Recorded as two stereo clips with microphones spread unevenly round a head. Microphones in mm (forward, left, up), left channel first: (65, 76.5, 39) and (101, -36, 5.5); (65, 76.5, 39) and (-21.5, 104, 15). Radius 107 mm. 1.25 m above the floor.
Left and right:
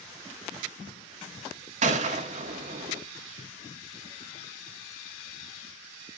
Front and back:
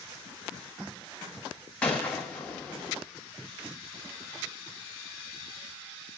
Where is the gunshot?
75° right, 0.9 m.